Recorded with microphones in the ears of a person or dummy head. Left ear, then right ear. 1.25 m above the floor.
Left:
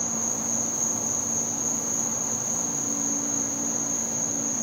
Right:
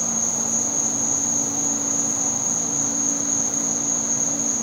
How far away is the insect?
About 2.5 m.